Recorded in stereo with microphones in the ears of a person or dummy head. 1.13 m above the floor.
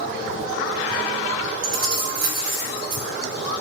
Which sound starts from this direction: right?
Keys jangling, at 1.6 s.